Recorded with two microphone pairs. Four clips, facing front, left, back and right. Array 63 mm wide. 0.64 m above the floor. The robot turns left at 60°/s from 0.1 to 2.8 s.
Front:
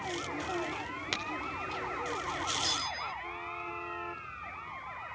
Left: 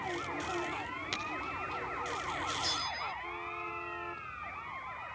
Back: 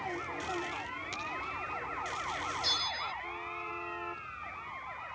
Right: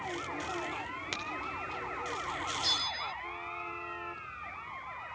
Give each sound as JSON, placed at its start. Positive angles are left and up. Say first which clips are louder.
{"t": 1.1, "sound": "a crack", "louder": "left 1 dB, front 7 dB", "azimuth_deg": -25, "distance_m": 2.5}
{"t": 2.6, "sound": "a bell", "louder": "right 1 dB, even", "azimuth_deg": -110, "distance_m": 0.5}